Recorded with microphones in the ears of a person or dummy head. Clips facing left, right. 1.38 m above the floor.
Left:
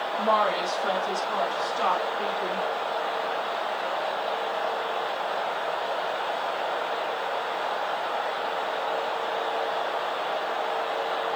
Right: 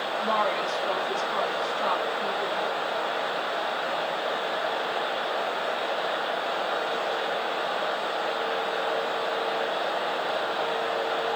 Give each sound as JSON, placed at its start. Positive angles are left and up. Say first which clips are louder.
{"t": 0.2, "sound": "a woman speaking", "louder": "left 3 dB", "side_deg": 60, "distance_m": 2.5}